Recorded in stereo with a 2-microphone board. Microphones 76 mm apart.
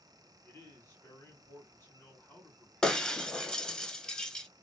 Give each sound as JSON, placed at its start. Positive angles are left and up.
{"t": 0.4, "sound": "a man speaking", "side_deg": 30, "distance_m": 1.5}
{"t": 2.8, "sound": "breaking glass", "side_deg": 10, "distance_m": 0.5}